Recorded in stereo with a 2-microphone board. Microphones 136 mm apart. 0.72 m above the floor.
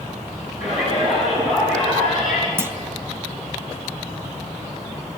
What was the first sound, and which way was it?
A shout, 60° left (ahead or behind).